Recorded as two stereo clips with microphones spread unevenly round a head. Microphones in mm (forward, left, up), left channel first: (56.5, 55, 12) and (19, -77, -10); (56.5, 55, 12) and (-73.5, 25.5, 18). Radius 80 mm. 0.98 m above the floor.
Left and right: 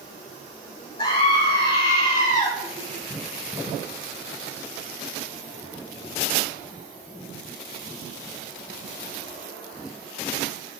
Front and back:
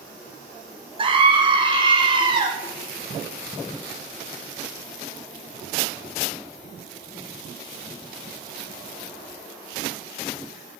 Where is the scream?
140° left, 3 m.